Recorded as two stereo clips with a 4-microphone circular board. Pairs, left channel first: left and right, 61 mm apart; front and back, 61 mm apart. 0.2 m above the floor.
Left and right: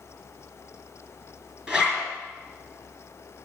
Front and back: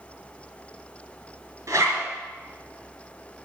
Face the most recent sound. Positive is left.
turn(degrees=-160)